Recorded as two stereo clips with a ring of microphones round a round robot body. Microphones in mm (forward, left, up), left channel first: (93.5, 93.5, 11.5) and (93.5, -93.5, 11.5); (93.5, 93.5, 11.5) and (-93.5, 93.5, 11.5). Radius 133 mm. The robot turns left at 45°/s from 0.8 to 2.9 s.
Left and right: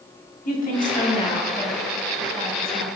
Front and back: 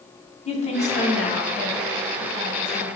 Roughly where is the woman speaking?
Ahead left.